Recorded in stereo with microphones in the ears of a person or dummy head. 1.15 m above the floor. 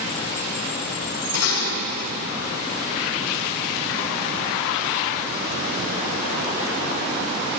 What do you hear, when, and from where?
1.3 s dishes clattering: 80° left, 4 m